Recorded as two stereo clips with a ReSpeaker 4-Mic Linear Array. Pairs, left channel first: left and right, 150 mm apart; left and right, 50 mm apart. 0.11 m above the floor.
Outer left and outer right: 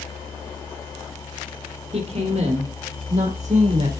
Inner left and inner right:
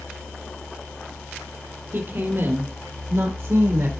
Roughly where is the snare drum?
I don't hear a snare drum.